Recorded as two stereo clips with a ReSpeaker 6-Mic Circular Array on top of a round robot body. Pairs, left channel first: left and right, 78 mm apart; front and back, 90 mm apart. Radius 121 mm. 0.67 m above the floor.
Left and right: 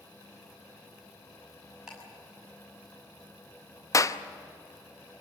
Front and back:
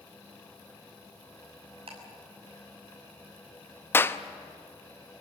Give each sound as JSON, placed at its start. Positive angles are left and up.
{"t": 1.9, "sound": "ticking", "azimuth_deg": -175, "distance_m": 6.5}
{"t": 3.9, "sound": "a clap", "azimuth_deg": 60, "distance_m": 1.0}